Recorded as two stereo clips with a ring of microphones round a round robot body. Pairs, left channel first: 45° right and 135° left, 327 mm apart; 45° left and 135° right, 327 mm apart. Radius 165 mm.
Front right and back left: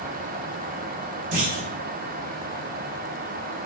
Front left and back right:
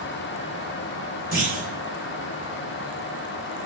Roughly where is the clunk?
Behind left.